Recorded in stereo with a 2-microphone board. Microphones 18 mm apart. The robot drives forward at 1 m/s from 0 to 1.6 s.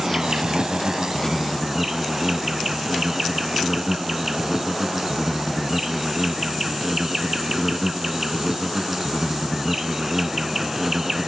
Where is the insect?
30° right (ahead or behind); by 11.3 s 25° right (ahead or behind).